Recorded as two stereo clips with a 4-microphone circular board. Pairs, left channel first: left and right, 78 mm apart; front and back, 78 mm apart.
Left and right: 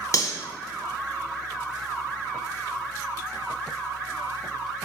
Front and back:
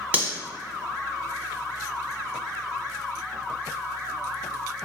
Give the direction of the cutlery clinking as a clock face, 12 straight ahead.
8 o'clock.